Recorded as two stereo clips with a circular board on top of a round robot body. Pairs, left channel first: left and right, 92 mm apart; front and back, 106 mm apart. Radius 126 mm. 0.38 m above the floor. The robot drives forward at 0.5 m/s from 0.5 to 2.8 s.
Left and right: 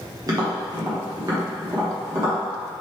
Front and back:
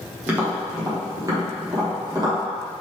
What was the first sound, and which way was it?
Tapping, 115° right.